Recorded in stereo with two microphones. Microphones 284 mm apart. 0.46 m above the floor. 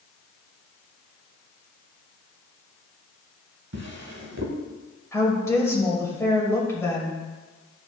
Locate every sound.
3.7 s a drawer: 60° right (ahead or behind), 1.1 m
5.1 s a woman speaking: 10° left (ahead or behind), 2.5 m